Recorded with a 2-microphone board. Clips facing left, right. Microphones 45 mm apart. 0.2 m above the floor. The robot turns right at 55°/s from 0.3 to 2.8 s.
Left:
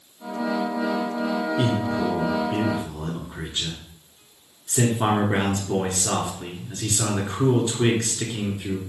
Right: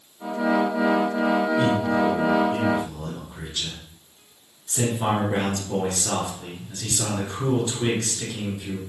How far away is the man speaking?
About 2.5 m.